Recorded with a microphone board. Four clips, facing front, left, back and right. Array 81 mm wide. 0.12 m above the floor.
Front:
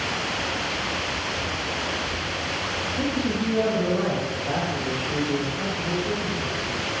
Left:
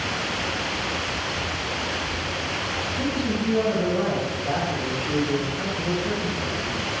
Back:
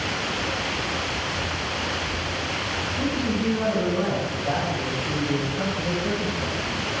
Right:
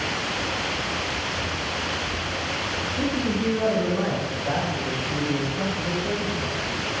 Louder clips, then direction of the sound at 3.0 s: Right 1 dB, even; 65° right.